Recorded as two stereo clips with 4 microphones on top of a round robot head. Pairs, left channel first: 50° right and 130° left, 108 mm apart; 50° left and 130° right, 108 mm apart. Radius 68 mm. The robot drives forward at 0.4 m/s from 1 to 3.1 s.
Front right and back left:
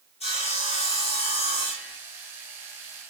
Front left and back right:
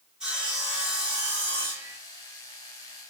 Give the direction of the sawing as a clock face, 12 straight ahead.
2 o'clock.